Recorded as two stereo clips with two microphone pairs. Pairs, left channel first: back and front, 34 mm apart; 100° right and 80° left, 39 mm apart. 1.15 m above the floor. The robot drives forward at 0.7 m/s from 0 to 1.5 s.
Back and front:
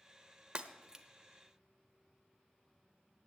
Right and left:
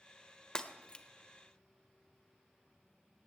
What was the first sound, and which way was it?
Breaking glass, 35° right.